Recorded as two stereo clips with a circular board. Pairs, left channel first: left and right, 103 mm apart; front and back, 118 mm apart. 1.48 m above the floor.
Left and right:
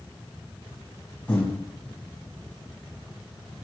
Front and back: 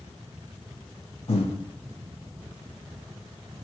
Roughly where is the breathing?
Ahead.